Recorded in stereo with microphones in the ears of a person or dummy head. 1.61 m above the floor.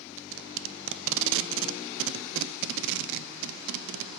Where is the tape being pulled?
70° right (ahead or behind), 0.9 m.